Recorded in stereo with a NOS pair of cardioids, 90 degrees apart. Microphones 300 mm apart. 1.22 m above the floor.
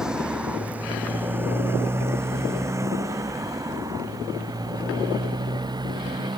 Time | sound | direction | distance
0.0 | a motorcycle | 5° right | ?